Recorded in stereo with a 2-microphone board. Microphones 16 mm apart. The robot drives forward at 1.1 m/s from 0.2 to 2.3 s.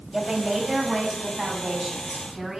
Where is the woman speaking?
40° right (ahead or behind), 4.5 m; by 2.6 s 25° right (ahead or behind), 6.5 m.